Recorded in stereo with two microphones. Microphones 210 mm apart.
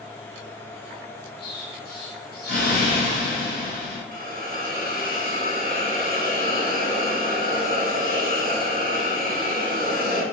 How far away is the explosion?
About 1.2 m.